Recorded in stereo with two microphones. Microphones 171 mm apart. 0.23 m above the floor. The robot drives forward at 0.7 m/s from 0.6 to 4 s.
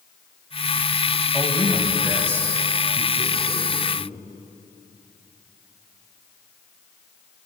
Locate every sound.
1.3 s a man speaking: 15° right (ahead or behind), 1.4 m; by 4.2 s 10° right (ahead or behind), 2.5 m